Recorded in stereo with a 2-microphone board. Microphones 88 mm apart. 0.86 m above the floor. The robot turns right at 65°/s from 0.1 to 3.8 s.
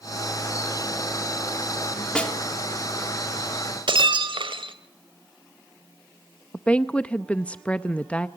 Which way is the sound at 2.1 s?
10° left (ahead or behind).